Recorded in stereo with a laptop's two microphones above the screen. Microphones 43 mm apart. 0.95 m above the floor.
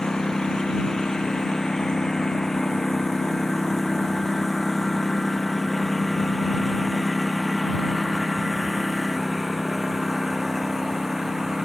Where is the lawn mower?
15° left (ahead or behind); by 11.7 s 5° right (ahead or behind).